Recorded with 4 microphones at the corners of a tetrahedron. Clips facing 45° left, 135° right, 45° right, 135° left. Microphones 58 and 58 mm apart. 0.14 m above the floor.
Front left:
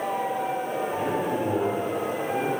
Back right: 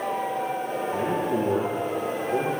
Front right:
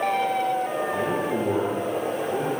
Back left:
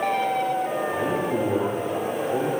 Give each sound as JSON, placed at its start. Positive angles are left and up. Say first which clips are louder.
{"t": 0.9, "sound": "a man speaking", "louder": "back right 3 dB, back left 1 dB", "azimuth_deg": -105, "distance_m": 5.0}